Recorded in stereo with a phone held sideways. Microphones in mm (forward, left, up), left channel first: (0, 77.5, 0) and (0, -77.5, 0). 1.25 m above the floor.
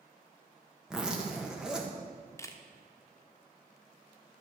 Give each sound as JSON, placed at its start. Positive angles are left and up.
{"t": 0.9, "sound": "a zipper", "side_deg": -5, "distance_m": 1.5}
{"t": 2.4, "sound": "a camera shutter", "side_deg": 20, "distance_m": 1.0}